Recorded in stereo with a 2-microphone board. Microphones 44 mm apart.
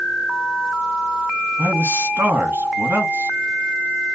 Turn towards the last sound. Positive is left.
turn(degrees=-55)  # may be behind; listen again after turning